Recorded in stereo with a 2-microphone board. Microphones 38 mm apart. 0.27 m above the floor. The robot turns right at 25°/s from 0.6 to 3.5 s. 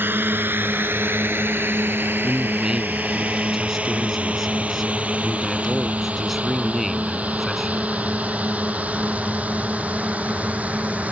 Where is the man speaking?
35° right; by 7.9 s 5° right.